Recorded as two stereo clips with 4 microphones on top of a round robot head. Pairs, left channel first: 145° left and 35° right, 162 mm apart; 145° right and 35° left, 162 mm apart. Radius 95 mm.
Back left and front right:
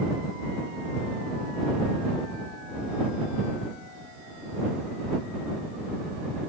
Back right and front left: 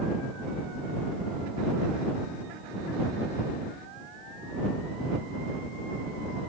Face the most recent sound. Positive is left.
No sound to turn to.